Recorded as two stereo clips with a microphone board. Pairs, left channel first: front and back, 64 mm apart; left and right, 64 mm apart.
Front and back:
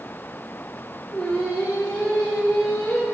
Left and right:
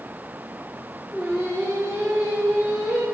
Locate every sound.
1.1 s singing: 85° right, 2.0 m